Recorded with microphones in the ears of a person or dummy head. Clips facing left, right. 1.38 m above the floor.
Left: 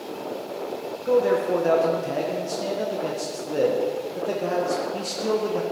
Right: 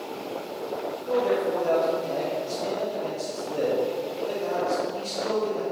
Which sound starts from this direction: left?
A man speaking, at 1.1 s.